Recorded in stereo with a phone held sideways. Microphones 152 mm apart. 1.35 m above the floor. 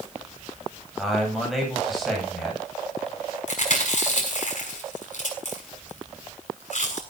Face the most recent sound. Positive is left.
turn(degrees=55)  # may be behind; listen again after turning